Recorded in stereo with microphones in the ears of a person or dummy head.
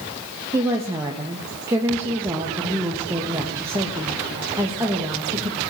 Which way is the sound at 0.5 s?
15° right (ahead or behind).